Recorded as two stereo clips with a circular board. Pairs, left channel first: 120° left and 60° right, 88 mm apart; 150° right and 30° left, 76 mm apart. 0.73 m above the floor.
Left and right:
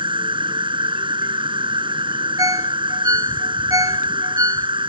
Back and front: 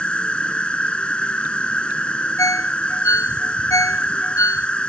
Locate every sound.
0.0 s an insect: 75° right
2.4 s a ringtone: 105° right